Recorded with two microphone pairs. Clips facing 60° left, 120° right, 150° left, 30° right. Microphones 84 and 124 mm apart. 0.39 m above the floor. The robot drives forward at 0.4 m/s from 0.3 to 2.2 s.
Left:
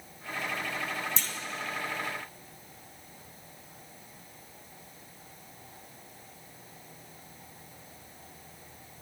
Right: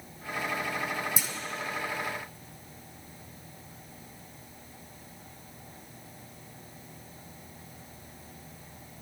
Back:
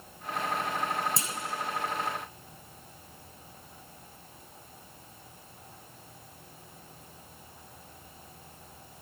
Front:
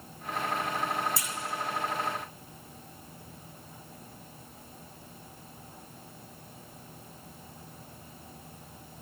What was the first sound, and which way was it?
A clunk, 165° left.